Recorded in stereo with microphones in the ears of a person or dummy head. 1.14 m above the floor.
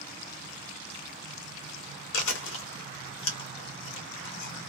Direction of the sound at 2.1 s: 80° left.